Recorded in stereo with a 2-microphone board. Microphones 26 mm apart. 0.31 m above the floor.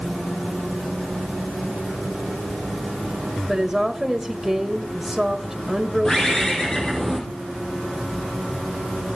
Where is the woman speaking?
15° right (ahead or behind), 1.3 m.